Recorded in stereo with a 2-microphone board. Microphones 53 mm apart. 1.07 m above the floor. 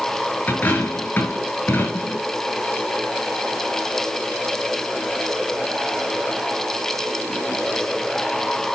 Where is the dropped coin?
40° left (ahead or behind), 5 m.